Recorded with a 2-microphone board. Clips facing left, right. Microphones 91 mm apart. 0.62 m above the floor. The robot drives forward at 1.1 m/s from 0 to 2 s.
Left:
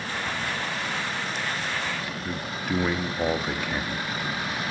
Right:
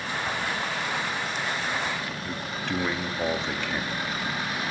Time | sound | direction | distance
2.2 | a man speaking | 10° left (ahead or behind) | 0.5 m